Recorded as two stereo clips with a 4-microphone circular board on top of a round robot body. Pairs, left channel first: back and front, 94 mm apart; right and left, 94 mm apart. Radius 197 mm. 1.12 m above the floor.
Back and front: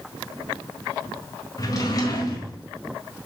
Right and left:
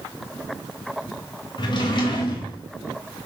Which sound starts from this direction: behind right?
A drawer, at 1.6 s.